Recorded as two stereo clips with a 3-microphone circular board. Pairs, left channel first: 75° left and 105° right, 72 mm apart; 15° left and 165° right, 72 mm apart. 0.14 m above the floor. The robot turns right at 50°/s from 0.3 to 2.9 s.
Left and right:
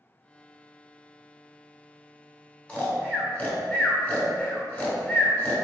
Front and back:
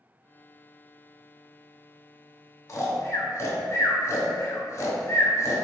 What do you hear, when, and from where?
2.7 s snoring: 10° left, 0.8 m; by 5.6 s 20° left, 0.8 m